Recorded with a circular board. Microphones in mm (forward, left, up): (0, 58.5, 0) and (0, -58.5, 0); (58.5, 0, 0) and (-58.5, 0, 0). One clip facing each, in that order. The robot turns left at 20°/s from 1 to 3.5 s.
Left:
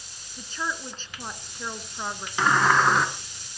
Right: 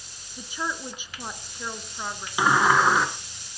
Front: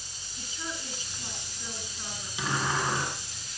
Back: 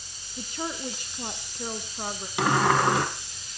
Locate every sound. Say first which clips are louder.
0.4 s a woman speaking: right 1 dB, back 7 dB; 170° right, 2.5 m; by 2.3 s 165° left, 2.5 m
2.4 s a sliding door: right 1 dB, back 8 dB; 165° right, 3 m; by 3.1 s straight behind, 3 m